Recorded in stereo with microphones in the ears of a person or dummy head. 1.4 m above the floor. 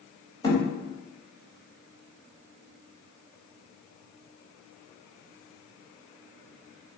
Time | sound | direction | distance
0.4 | a thud | 30° left (ahead or behind) | 4 m